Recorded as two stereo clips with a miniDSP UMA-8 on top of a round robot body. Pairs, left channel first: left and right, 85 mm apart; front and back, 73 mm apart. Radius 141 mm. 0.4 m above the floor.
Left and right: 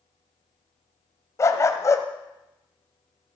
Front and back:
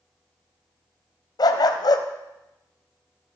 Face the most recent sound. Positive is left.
turn(degrees=35)